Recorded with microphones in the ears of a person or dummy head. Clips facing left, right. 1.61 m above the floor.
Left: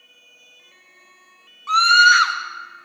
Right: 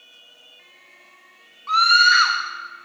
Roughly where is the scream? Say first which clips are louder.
Left 2 dB; left.